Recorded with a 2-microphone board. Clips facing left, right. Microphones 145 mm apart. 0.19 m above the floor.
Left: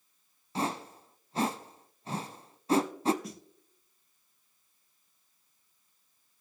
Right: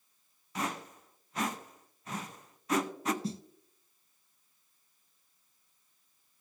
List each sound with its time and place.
0.6 s a whoosh: 30° left (ahead or behind), 0.7 m
3.2 s a snare drum: 30° right (ahead or behind), 0.6 m